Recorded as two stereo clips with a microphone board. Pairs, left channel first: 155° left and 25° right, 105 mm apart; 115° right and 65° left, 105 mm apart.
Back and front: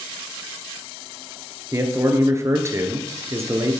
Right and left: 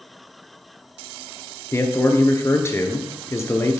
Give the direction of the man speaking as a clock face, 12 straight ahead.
2 o'clock.